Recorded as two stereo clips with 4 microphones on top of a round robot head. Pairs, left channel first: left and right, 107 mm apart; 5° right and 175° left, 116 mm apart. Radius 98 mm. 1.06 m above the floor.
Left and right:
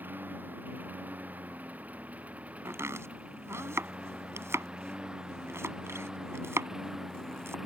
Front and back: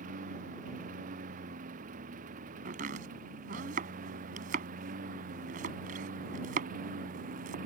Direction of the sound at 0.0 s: 165° right.